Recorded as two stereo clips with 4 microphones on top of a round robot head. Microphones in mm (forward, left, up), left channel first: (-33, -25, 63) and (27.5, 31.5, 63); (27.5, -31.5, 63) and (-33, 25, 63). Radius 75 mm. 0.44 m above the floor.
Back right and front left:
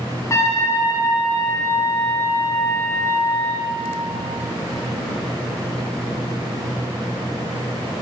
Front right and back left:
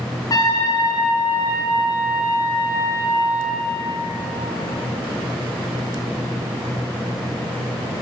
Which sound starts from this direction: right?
A trumpet, at 0.3 s.